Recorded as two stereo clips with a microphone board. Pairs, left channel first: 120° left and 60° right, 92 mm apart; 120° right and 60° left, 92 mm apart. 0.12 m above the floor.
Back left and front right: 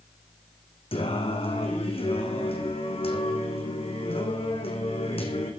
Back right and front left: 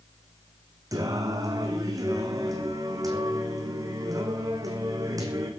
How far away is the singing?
About 2.5 m.